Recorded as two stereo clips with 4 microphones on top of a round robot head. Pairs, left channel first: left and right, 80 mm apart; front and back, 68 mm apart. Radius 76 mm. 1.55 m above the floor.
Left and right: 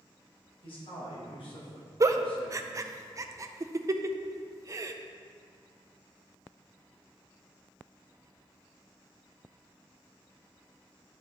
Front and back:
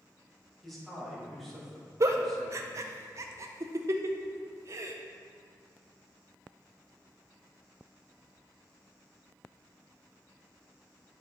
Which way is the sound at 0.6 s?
85° left.